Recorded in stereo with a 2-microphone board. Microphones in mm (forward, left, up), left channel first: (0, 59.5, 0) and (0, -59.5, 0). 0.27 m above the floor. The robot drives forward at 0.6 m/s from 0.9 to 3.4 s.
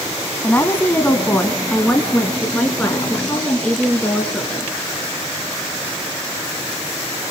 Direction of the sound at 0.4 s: 15° left (ahead or behind).